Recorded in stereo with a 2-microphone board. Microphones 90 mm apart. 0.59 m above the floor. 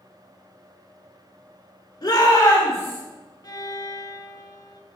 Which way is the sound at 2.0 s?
50° left (ahead or behind).